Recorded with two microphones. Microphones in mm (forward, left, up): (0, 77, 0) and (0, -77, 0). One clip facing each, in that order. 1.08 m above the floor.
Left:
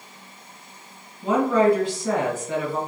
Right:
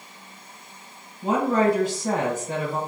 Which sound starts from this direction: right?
A woman speaking, at 1.2 s.